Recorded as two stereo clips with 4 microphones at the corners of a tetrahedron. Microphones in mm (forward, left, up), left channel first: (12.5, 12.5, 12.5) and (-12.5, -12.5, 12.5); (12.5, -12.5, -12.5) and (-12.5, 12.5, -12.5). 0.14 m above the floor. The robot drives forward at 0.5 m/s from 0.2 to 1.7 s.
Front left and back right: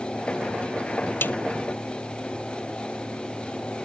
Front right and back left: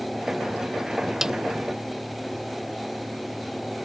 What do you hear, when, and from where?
1.2 s a snare drum: 60° left; by 1.4 s 65° left